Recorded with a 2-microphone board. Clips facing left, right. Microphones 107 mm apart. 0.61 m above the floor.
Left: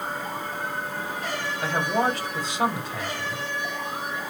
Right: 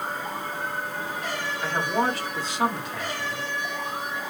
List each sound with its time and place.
1.6 s a man speaking: 25° left (ahead or behind), 3 m